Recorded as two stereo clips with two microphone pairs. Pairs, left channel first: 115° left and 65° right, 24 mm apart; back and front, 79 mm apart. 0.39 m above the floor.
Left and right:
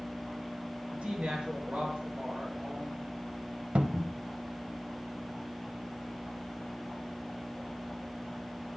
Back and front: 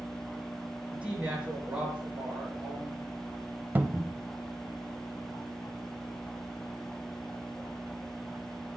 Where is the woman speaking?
75° right, 5.5 m.